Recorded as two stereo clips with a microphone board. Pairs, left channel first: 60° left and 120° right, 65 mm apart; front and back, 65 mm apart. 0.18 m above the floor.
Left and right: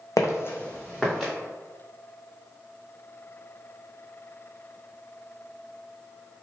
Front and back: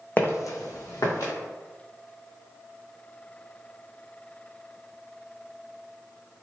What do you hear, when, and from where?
0.2 s footsteps: 55° left, 0.5 m; by 1.3 s 35° right, 1.3 m